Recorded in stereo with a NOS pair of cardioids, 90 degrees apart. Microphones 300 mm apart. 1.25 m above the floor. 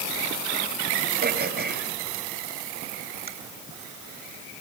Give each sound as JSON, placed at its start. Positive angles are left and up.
{"t": 1.2, "sound": "throat clearing", "azimuth_deg": -35, "distance_m": 3.5}